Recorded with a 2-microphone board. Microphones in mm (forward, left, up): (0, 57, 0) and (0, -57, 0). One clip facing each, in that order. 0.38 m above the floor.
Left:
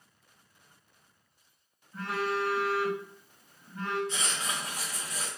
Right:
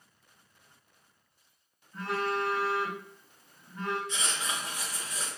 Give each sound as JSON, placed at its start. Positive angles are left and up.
{"t": 1.9, "sound": "a phone buzzing", "side_deg": 5, "distance_m": 1.5}
{"t": 4.1, "sound": "writing", "side_deg": 40, "distance_m": 1.9}